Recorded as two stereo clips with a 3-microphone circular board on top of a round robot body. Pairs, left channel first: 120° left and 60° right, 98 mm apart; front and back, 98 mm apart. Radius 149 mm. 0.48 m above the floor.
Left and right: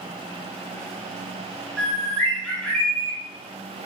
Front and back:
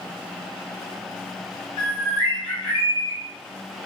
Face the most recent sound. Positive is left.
turn(degrees=40)